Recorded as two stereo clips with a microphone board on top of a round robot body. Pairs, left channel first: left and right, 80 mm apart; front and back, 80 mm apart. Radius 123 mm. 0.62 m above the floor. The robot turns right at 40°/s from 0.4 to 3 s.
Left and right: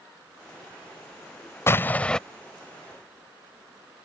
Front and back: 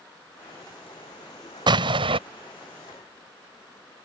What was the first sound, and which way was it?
An explosion, 150° left.